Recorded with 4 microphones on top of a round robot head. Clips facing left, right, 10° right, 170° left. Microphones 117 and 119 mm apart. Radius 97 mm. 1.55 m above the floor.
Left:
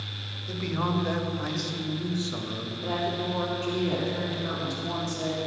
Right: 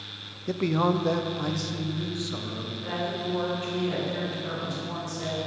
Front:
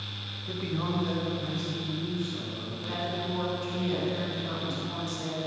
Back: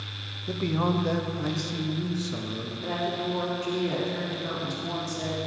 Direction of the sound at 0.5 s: 125° right.